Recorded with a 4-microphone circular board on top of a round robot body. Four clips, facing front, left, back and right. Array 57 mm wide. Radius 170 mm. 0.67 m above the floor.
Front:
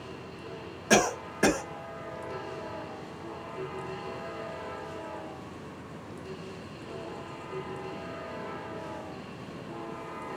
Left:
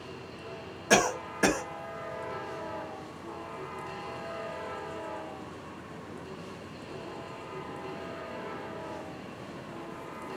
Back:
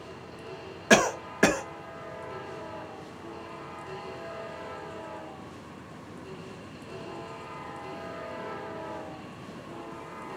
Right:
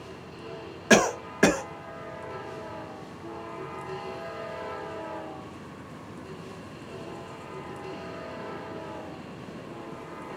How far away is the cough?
About 1.3 m.